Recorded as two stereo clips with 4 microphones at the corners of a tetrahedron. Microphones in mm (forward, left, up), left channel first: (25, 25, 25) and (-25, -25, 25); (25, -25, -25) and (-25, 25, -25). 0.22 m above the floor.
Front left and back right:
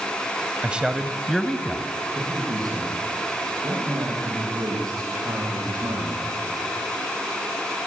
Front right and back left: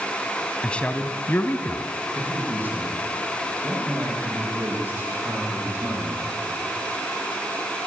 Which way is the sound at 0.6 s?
95° right.